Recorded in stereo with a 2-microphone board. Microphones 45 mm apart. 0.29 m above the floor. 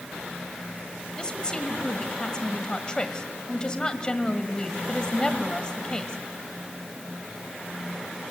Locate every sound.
1.2 s a woman speaking: 25° left (ahead or behind), 1.3 m